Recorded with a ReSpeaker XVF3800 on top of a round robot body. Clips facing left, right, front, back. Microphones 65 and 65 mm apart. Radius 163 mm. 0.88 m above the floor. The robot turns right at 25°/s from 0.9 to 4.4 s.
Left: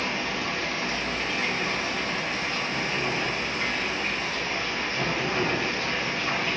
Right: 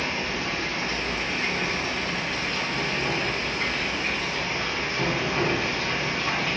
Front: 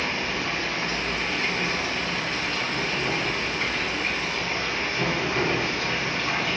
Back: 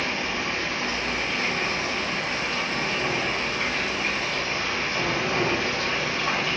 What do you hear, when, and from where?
0.0 s running water: 105° left, 1.5 m; by 6.6 s 165° right, 1.5 m